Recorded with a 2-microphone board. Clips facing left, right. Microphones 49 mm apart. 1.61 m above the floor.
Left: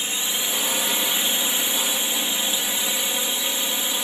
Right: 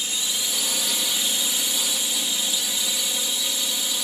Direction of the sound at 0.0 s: 35° left (ahead or behind).